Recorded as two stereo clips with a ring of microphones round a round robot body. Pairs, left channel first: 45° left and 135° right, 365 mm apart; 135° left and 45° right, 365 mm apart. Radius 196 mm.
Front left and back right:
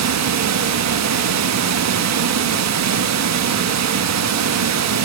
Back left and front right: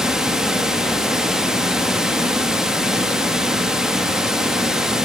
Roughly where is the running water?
Behind right.